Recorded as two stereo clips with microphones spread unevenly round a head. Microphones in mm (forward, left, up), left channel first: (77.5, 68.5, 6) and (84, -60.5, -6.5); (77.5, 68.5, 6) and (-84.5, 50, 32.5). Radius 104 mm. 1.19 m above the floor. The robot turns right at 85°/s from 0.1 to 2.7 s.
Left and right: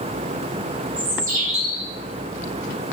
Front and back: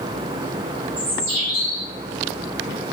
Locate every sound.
1.0 s a bird: 105° right, 1.6 m; by 1.9 s 25° right, 1.6 m